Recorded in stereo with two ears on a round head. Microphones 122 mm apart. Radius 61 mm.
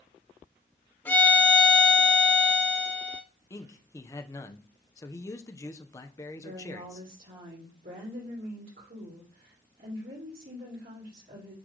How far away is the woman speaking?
About 3 m.